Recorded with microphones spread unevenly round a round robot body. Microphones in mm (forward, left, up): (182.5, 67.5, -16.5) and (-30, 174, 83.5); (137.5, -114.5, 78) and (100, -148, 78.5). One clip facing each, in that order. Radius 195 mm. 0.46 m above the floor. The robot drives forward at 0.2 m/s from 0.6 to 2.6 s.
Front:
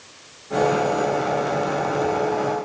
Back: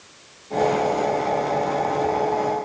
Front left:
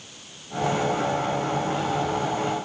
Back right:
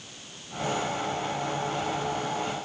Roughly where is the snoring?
I don't hear snoring.